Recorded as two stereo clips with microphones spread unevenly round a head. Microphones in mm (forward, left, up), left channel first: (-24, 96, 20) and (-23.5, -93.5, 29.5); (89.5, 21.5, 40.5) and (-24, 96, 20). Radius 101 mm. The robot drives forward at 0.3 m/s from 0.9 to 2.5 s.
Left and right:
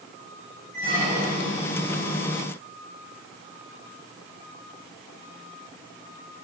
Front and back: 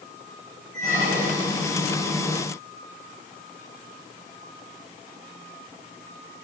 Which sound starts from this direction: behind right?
A squeak, at 0.7 s.